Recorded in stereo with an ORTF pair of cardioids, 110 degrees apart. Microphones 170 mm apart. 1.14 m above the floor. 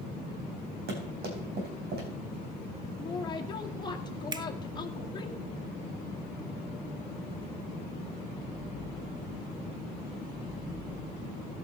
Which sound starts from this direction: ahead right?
A finger snap, at 4.3 s.